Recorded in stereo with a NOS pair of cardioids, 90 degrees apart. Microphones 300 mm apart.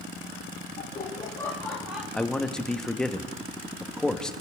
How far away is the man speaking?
About 1.3 m.